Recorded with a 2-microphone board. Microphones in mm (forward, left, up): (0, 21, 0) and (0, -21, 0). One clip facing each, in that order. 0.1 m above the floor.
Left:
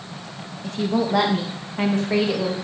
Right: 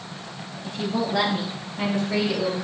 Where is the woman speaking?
65° left (ahead or behind), 5 m; by 2.5 s 55° left (ahead or behind), 6 m.